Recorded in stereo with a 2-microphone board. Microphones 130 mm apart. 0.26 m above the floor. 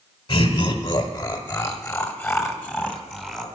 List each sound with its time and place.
0.3 s laughter: 35° left (ahead or behind), 1.8 m; by 3.5 s 10° right (ahead or behind), 1.9 m